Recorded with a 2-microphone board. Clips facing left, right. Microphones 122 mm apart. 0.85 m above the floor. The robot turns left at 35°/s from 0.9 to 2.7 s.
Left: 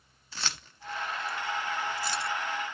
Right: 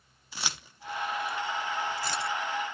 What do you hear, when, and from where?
0.3 s keys jangling: 10° right (ahead or behind), 0.7 m; by 2.3 s 60° right (ahead or behind), 0.7 m